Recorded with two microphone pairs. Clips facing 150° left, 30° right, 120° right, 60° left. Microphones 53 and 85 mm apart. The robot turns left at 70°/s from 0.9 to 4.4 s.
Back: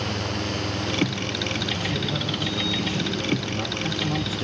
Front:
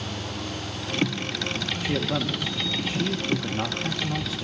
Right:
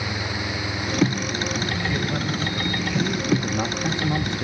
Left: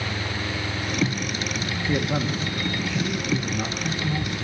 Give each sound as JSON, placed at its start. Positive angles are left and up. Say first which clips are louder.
{"t": 1.8, "sound": "a man speaking", "louder": "front 1 dB, left 1 dB", "azimuth_deg": 30, "distance_m": 1.2}